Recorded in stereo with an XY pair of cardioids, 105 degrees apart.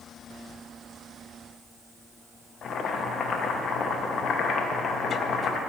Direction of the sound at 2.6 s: 60° left.